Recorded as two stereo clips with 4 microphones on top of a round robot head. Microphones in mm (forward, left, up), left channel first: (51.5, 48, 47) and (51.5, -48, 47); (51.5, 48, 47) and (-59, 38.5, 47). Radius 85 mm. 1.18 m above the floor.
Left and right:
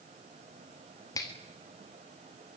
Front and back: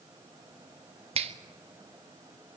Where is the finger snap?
155° left, 2.0 m.